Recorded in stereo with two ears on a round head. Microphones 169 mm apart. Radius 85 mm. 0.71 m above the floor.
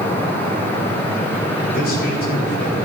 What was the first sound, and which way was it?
A man speaking, 50° left (ahead or behind).